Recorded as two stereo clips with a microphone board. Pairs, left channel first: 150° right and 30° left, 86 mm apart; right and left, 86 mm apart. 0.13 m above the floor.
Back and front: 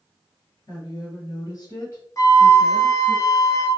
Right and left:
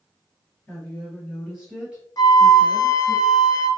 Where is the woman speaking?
160° right, 1.9 m; by 3.2 s 140° left, 1.8 m.